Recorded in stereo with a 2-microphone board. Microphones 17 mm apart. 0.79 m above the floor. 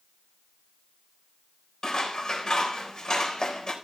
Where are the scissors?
55° left (ahead or behind), 4 m.